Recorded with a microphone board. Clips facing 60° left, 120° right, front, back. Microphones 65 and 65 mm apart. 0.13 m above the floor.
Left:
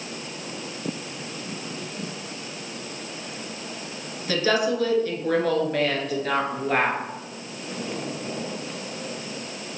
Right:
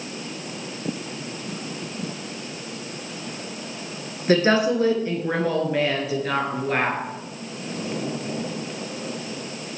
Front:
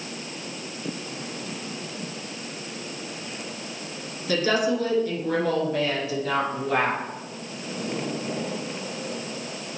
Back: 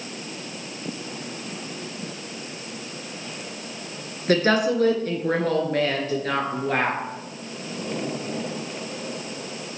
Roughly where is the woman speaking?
Behind.